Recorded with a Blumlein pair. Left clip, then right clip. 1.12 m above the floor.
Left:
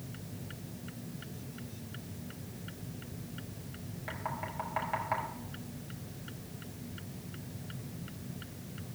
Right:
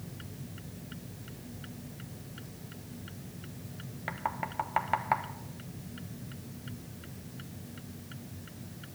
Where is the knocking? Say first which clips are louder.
Right 4 dB; 65° right, 1.2 m.